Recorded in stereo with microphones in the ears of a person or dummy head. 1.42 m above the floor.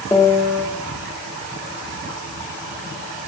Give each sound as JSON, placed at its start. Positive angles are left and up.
{"t": 0.1, "sound": "a piano", "side_deg": 15, "distance_m": 0.7}